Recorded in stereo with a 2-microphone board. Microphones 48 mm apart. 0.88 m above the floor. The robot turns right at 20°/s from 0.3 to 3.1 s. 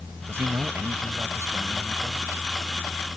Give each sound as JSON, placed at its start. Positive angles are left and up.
{"t": 0.3, "sound": "a man speaking", "azimuth_deg": -120}